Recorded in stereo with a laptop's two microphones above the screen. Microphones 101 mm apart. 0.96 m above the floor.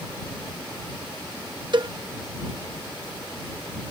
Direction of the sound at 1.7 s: 55° right (ahead or behind).